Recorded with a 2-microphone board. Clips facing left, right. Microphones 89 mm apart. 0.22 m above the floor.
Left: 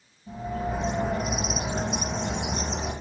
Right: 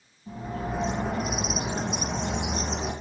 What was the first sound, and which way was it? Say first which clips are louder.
A bird: left 2 dB; 50° right (ahead or behind).